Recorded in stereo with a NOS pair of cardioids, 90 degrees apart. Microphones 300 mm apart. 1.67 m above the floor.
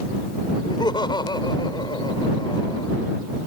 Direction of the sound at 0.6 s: 15° left.